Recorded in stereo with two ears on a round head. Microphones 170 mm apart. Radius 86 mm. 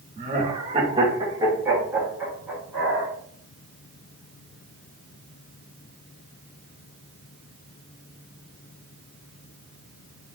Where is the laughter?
35° right (ahead or behind), 0.9 m; by 3.1 s 5° right (ahead or behind), 2.5 m.